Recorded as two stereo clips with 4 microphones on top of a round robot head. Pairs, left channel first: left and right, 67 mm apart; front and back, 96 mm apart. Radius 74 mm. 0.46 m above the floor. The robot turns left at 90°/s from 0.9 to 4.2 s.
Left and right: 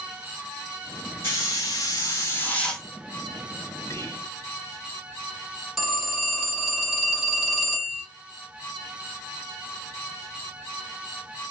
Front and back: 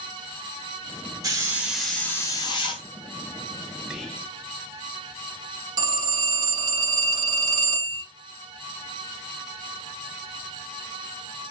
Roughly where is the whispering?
Left.